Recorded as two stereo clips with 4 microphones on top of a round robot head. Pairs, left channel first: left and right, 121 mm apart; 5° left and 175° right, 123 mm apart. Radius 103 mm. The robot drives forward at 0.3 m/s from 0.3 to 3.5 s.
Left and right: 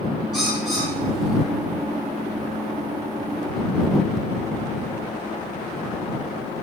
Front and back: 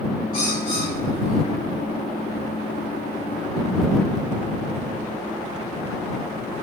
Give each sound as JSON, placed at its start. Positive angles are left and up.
{"t": 0.3, "sound": "a bird", "azimuth_deg": 0, "distance_m": 6.0}